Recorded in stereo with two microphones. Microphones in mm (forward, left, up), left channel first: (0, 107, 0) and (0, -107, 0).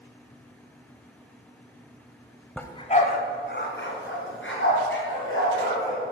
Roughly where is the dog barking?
Centre.